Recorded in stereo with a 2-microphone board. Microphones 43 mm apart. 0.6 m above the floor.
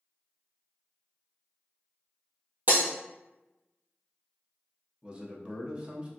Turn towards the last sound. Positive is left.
turn(degrees=-25)  # may be behind; listen again after turning